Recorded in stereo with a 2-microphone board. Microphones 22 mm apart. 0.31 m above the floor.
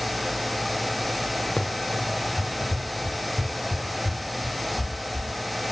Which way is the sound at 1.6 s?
55° left (ahead or behind).